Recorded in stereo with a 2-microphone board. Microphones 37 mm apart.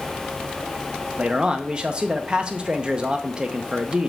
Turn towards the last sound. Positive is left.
turn(degrees=-25)  # may be behind; listen again after turning